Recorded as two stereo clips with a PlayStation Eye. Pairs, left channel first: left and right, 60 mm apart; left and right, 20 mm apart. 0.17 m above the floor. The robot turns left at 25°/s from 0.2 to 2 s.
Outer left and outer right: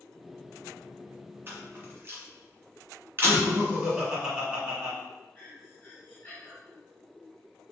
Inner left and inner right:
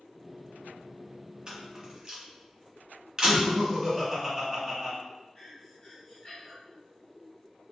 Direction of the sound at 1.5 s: 40° right (ahead or behind).